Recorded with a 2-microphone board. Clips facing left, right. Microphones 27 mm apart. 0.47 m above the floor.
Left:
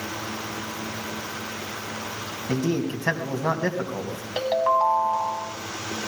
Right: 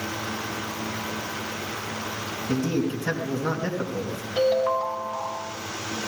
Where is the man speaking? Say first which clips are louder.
Even; 65° left (ahead or behind), 3 m.